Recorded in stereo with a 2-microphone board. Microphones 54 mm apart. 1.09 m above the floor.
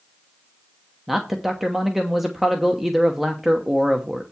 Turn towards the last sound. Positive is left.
turn(degrees=-5)  # may be behind; listen again after turning